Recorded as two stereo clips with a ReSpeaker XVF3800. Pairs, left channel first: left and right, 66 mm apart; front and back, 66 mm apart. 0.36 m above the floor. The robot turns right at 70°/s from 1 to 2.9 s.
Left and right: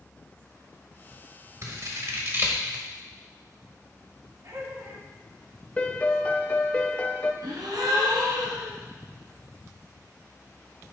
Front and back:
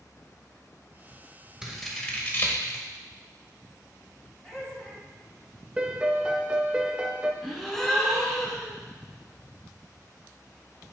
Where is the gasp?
85° right, 1.4 m.